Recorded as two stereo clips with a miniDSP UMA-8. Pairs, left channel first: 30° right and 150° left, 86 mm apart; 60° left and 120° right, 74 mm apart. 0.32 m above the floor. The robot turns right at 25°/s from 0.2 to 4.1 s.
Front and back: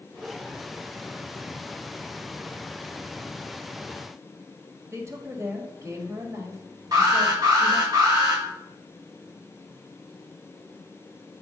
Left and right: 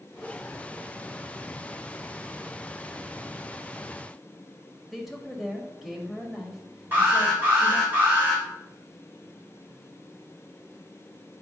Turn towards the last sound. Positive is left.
turn(degrees=180)